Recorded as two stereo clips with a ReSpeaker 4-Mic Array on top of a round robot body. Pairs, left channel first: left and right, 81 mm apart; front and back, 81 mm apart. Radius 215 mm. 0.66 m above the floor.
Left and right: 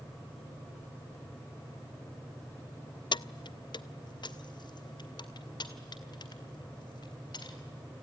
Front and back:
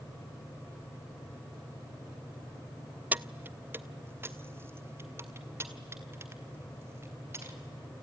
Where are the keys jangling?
110° left, 0.5 m; by 7.6 s 120° left, 3.5 m.